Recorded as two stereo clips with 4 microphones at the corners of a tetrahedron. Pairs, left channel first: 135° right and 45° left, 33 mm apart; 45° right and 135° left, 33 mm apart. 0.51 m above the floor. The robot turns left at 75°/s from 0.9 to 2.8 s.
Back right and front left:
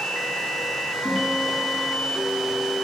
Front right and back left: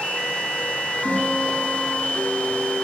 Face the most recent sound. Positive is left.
turn(degrees=-45)